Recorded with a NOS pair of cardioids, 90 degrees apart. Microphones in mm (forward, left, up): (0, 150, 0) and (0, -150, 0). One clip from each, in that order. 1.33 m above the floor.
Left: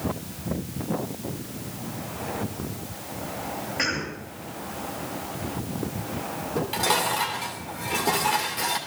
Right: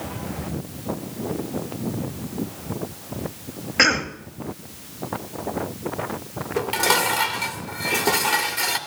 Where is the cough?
65° right, 2.5 m.